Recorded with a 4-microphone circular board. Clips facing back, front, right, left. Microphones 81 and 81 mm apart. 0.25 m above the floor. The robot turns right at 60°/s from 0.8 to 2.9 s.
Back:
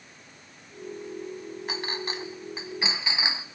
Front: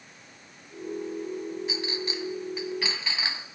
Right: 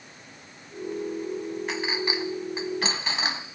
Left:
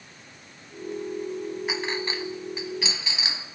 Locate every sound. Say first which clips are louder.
1.7 s a clink: front 1 dB, right 2 dB; 175° left, 1.3 m; by 3.5 s 115° right, 1.3 m